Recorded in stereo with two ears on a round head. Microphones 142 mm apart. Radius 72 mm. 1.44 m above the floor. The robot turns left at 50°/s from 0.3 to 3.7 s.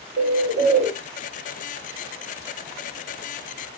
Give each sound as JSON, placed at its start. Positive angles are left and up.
{"t": 0.2, "sound": "a bird", "azimuth_deg": -125, "distance_m": 0.7}